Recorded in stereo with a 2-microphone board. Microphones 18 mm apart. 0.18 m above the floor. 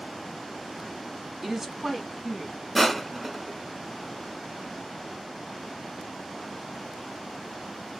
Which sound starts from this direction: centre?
Crushing, at 2.8 s.